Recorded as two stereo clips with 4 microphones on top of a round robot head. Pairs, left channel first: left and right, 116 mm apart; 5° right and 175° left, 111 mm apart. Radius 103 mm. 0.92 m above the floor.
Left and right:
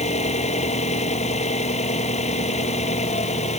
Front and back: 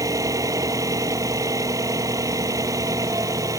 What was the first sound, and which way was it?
An engine running, 115° left.